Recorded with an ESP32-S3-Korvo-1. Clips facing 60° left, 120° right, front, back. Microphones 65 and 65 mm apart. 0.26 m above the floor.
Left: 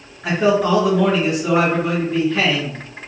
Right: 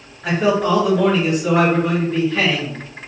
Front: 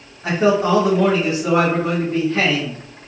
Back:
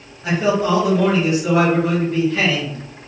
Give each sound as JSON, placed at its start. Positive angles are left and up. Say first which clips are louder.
{"t": 0.2, "sound": "a man speaking", "louder": "left 1 dB, front 2 dB", "azimuth_deg": -20, "distance_m": 1.2}